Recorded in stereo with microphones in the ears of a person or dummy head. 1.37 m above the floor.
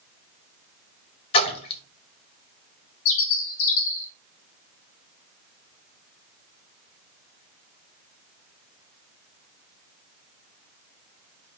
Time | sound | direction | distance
1.3 | a splash | 35° left (ahead or behind) | 1.1 m
3.0 | a bird | 70° left (ahead or behind) | 0.6 m